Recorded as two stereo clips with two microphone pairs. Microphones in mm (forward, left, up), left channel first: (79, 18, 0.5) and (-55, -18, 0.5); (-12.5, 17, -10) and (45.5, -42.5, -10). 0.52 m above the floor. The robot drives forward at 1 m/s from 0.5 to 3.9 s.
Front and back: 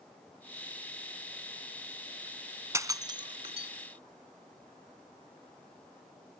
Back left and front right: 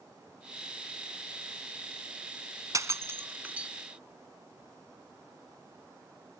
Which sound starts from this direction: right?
Breaking glass, at 2.7 s.